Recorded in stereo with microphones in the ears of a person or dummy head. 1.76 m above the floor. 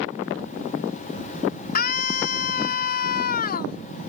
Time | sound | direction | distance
1.8 | a scream | 50° left (ahead or behind) | ?